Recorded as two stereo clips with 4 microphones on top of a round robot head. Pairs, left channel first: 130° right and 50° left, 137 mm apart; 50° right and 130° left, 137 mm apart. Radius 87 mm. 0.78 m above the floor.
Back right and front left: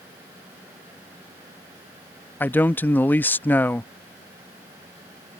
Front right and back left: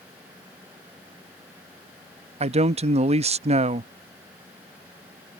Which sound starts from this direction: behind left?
A man speaking, at 2.4 s.